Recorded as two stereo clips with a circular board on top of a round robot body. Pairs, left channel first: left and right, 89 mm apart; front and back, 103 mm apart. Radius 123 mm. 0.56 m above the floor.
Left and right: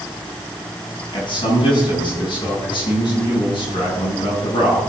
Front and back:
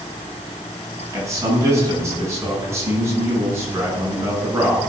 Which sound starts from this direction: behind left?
A man speaking, at 1.1 s.